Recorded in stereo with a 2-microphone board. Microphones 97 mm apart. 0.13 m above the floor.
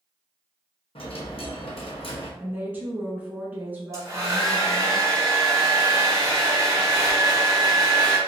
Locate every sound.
0.9 s a dropped coin: 70° left (ahead or behind), 1.0 m
2.4 s a woman speaking: 20° right (ahead or behind), 1.0 m
3.9 s a hair dryer: 35° right (ahead or behind), 1.8 m